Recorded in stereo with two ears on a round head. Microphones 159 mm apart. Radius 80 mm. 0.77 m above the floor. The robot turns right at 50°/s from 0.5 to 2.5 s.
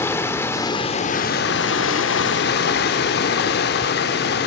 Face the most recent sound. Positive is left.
turn(degrees=115)